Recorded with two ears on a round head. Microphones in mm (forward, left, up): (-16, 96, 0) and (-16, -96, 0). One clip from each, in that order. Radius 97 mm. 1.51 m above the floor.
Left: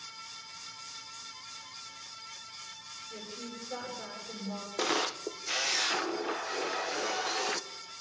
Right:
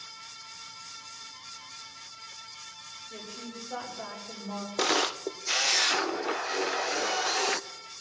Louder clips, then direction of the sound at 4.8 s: Right 4 dB; 15° right (ahead or behind).